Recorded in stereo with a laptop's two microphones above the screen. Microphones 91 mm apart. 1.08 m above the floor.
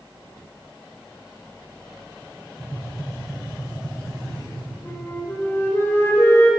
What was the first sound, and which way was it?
Tapping, 5° right (ahead or behind).